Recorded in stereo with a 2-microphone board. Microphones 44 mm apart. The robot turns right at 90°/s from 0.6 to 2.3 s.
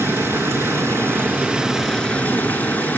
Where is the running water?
110° right, 3.5 m; by 3.0 s 40° left, 3.5 m.